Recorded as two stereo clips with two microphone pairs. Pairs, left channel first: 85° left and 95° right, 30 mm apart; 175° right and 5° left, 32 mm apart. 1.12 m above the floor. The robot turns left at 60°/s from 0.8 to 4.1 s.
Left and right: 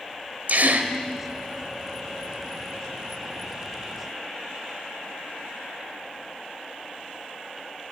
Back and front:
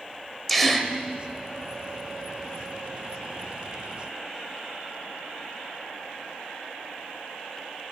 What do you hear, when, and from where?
0.5 s a gasp: 90° right, 1.9 m; by 0.9 s 95° right, 1.9 m